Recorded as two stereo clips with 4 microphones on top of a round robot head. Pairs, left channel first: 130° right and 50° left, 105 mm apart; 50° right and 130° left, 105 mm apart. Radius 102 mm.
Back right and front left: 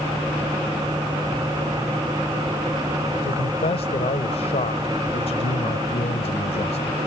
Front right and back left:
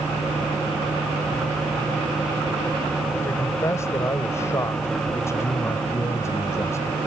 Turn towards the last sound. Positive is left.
turn(degrees=-115)